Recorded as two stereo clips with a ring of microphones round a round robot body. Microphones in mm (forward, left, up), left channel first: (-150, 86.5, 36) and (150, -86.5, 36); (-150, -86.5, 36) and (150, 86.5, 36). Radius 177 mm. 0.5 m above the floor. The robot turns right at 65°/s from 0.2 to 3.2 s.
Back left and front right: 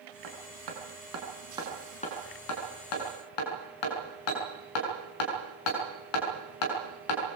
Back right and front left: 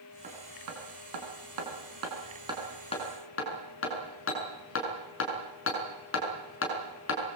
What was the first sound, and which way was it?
Hammering, 40° right.